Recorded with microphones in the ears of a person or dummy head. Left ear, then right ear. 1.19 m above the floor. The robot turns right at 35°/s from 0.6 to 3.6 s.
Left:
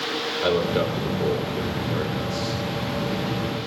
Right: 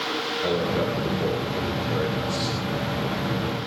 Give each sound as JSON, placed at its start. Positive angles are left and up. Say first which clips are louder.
{"t": 0.4, "sound": "a man speaking", "louder": "left 3 dB", "azimuth_deg": 150, "distance_m": 3.0}